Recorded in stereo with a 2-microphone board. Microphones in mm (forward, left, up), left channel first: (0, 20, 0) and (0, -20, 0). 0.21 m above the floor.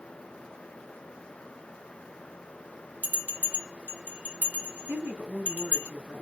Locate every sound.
3.0 s a bell: 45° right (ahead or behind), 1.8 m
4.9 s a woman speaking: 60° right (ahead or behind), 1.9 m